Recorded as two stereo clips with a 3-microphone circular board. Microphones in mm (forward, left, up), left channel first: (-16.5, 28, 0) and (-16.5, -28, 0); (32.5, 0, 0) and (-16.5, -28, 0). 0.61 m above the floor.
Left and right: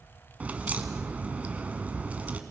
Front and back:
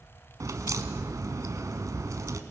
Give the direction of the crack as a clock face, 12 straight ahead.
5 o'clock.